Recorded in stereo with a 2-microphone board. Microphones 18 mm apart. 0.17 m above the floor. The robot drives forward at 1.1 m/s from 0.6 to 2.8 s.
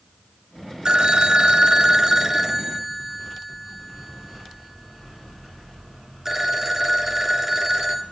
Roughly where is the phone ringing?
Right.